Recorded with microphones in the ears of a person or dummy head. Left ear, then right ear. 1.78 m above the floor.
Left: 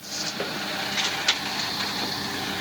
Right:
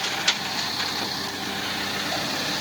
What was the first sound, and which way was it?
Only background noise.